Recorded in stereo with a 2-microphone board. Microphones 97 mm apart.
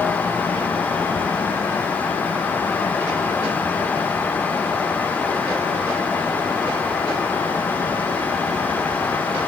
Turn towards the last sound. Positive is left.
No sound to turn to.